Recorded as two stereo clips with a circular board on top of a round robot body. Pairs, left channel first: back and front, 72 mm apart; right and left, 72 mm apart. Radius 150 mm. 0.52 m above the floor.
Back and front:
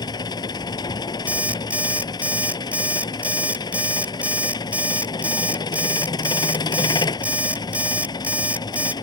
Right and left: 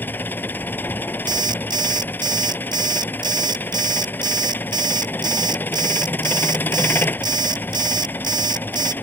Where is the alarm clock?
70° left.